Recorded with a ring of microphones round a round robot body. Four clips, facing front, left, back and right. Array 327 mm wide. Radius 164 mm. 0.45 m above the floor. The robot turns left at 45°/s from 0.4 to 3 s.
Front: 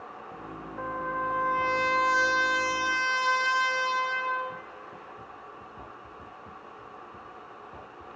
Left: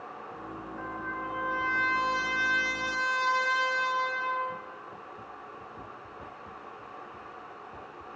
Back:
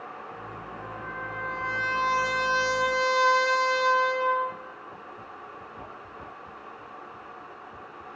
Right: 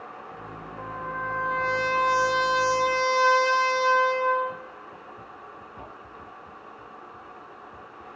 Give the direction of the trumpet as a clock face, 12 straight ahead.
12 o'clock.